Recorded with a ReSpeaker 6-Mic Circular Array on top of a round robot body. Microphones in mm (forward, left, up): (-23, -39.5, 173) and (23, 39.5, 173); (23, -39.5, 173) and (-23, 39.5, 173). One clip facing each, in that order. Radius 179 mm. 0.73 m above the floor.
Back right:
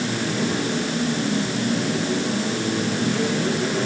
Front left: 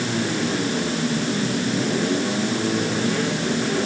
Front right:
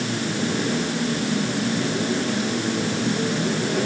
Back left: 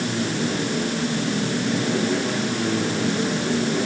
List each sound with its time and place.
Only background noise.